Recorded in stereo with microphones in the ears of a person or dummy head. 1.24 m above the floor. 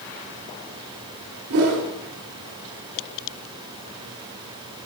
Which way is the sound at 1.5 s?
65° right (ahead or behind).